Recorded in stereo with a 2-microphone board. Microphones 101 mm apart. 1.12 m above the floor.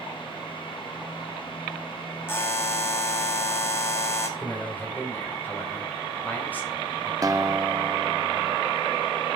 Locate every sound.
2.3 s a buzzer: 20° left (ahead or behind), 1.9 m
4.4 s a man speaking: 15° left (ahead or behind), 4.5 m
7.2 s a guitar: 30° right (ahead or behind), 0.7 m